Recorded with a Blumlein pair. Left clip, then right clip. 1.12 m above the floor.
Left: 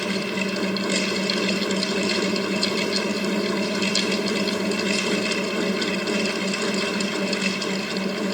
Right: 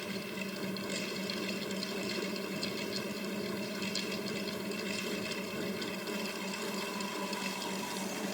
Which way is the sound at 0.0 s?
35° left.